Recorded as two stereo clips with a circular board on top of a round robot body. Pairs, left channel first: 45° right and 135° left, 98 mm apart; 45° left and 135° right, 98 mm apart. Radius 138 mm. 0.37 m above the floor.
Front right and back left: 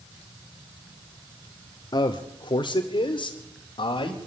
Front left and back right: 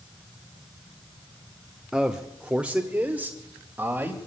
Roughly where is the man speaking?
Ahead right.